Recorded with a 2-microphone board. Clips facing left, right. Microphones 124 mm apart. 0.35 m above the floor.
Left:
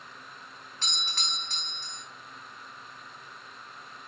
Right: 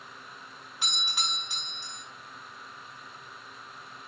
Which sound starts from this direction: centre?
A doorbell, at 0.8 s.